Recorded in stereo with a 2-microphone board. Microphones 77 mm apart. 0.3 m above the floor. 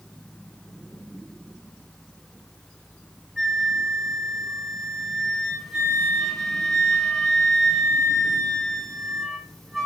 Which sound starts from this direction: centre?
A flute, at 3.4 s.